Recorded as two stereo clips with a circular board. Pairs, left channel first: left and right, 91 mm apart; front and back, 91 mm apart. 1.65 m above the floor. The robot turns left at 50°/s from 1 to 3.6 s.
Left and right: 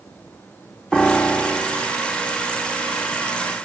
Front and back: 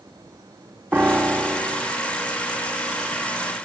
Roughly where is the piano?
Behind.